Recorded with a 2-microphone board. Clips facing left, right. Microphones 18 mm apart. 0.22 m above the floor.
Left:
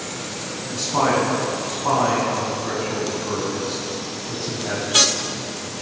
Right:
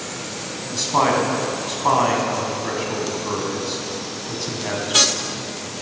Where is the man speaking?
40° right (ahead or behind), 1.3 m.